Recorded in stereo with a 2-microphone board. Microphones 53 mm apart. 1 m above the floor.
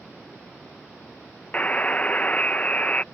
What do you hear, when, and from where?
1.5 s a buzzer: 25° left (ahead or behind)